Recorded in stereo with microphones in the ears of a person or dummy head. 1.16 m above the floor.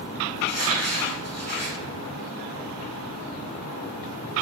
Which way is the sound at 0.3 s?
50° left (ahead or behind).